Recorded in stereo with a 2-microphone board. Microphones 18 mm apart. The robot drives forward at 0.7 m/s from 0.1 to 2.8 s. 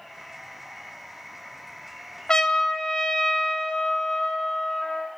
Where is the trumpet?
50° left (ahead or behind), 0.8 m; by 5.1 s 40° left (ahead or behind), 0.9 m.